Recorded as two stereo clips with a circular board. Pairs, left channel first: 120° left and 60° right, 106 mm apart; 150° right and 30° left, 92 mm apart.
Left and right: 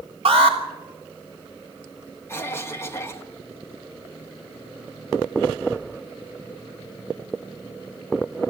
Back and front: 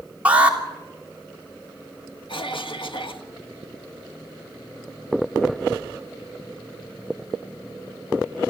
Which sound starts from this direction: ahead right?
An alarm, at 0.2 s.